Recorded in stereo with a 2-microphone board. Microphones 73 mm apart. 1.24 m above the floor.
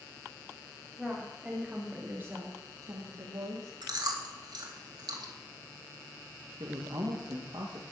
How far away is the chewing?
About 2.5 m.